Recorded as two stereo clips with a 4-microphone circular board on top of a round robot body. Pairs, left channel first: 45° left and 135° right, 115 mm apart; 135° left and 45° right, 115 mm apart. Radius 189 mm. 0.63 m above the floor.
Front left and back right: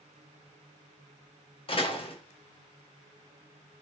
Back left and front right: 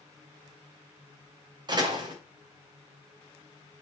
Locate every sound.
1.7 s a door slam: 5° left, 2.5 m